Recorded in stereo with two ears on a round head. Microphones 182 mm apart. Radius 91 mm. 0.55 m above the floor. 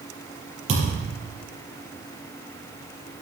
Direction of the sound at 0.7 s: 35° right (ahead or behind).